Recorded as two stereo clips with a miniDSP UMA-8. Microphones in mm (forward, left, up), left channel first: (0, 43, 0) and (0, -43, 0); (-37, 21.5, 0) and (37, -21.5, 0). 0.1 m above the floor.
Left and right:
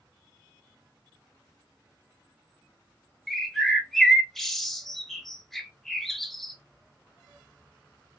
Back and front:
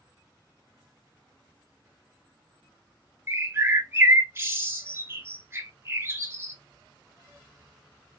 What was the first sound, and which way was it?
A bird, 5° left.